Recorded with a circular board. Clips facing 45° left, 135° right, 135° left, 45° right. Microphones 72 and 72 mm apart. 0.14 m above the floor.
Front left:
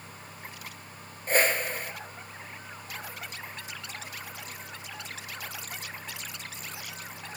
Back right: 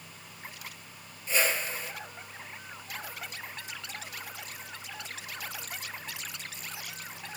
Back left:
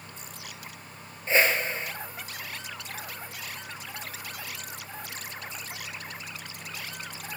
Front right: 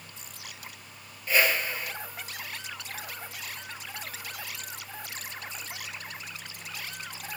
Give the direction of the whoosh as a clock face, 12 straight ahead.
9 o'clock.